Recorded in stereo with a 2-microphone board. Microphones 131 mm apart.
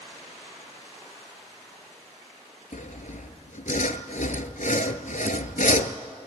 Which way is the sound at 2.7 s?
80° left.